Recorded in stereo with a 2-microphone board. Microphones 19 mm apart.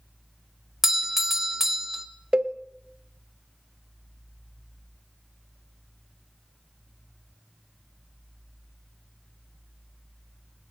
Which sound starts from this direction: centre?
A doorbell, at 0.8 s.